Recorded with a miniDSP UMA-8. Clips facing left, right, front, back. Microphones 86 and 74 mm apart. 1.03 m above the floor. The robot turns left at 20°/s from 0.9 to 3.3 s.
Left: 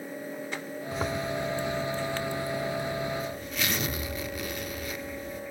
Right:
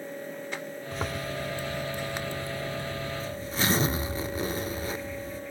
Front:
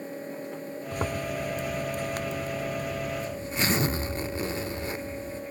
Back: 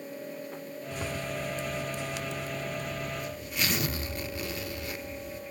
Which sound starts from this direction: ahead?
A zipper, at 0.9 s.